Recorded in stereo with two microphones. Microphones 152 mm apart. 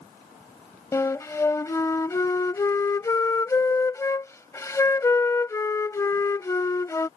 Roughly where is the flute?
Centre.